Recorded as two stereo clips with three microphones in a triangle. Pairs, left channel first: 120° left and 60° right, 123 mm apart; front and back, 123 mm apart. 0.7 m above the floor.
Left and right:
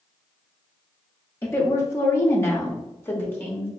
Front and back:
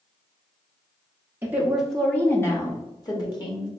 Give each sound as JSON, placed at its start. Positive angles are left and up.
{"t": 1.4, "sound": "a woman speaking", "azimuth_deg": 145, "distance_m": 0.6}